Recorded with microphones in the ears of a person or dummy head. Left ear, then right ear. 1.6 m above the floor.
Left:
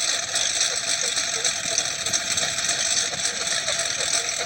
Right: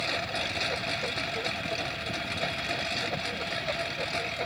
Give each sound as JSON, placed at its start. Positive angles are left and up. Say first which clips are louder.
{"t": 0.0, "sound": "a lawn mower", "louder": "left 6 dB", "side_deg": 75}